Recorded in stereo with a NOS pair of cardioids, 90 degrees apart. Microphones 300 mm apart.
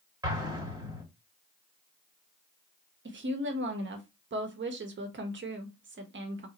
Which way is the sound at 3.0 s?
40° right.